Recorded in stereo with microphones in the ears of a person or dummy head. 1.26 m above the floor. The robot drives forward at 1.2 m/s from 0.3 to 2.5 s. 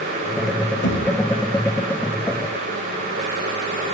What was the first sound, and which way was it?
Knocking, 65° left (ahead or behind).